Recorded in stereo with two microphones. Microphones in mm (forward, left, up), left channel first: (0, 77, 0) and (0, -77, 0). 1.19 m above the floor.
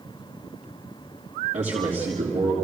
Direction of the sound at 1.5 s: 55° right (ahead or behind).